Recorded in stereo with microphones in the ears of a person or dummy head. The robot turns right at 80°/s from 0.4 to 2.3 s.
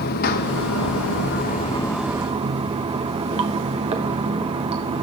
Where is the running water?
55° left, 0.8 m; by 5.0 s 155° right, 0.8 m.